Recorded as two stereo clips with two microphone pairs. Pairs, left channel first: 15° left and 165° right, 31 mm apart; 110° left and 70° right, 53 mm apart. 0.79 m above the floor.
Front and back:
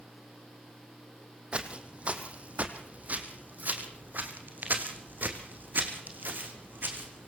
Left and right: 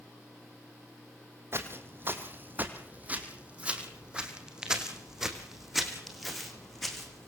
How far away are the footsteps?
About 2.5 m.